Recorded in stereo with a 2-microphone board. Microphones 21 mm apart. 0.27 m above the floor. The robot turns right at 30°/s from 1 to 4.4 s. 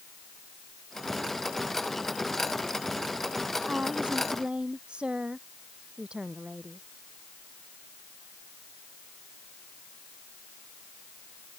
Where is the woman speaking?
75° right (ahead or behind); by 6.8 s 50° right (ahead or behind).